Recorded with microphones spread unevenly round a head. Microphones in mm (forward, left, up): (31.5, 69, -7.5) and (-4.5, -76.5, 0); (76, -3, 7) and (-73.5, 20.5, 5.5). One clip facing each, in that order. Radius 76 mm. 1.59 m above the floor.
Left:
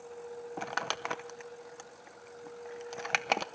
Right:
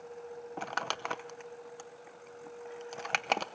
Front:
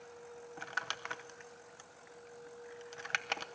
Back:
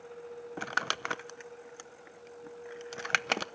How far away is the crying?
I don't hear crying.